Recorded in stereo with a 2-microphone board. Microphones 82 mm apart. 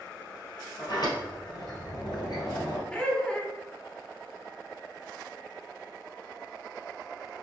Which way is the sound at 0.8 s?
60° left (ahead or behind).